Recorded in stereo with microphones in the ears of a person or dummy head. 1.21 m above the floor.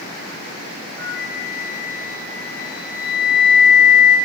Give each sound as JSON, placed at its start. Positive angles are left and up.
{"t": 1.0, "sound": "a flute", "side_deg": 20, "distance_m": 1.1}